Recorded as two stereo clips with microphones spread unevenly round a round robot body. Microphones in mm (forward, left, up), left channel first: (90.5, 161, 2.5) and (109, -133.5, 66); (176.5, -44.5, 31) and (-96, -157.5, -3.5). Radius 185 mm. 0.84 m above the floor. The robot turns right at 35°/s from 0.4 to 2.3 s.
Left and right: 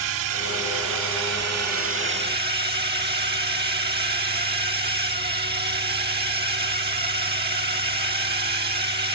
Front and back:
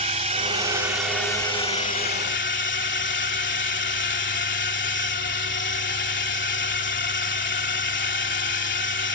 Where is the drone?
95° right; by 9.2 s 25° right.